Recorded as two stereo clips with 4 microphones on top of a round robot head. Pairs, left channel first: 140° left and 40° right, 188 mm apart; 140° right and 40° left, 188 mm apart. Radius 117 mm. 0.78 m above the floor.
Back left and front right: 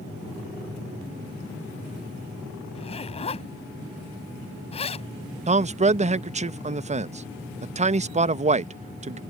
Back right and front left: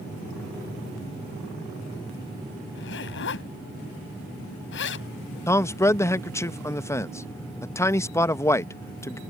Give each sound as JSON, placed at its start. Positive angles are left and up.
{"t": 2.8, "sound": "a zipper", "azimuth_deg": -160}
{"t": 5.5, "sound": "a man speaking", "azimuth_deg": -70}